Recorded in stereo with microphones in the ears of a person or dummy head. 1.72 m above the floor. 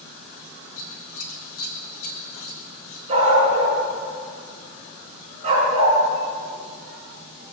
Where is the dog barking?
35° right (ahead or behind), 5.5 m.